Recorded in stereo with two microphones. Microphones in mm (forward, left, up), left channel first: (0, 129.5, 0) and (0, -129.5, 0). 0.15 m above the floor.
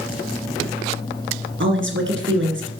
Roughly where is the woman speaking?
Right.